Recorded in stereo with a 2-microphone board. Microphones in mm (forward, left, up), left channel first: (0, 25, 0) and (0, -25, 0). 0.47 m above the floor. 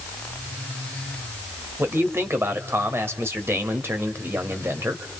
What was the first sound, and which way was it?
A man speaking, 55° right (ahead or behind).